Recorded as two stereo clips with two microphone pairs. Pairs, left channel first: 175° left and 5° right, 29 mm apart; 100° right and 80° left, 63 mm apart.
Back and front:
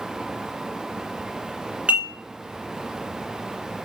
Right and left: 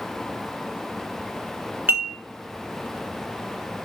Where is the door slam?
I don't hear a door slam.